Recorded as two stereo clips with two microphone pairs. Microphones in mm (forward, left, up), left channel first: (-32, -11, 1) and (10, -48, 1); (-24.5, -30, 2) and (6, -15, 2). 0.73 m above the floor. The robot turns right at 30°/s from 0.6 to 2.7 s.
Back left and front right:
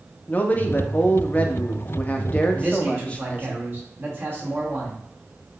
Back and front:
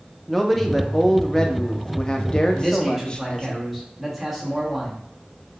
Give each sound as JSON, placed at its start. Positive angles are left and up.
{"t": 0.3, "sound": "a man speaking", "azimuth_deg": 120, "distance_m": 0.6}
{"t": 2.5, "sound": "a man speaking", "azimuth_deg": -70, "distance_m": 1.4}